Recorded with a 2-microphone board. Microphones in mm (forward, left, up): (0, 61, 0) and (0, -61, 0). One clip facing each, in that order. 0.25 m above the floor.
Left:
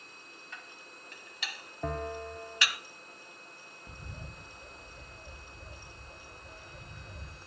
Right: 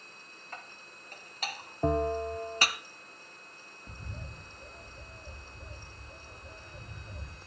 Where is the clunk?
No clunk in this recording.